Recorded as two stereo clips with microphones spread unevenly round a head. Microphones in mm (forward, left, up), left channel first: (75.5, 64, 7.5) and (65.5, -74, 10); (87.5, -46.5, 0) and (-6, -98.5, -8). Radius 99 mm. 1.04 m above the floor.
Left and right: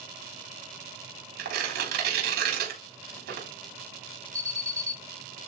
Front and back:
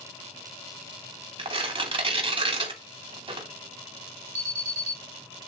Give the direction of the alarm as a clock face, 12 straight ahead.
6 o'clock.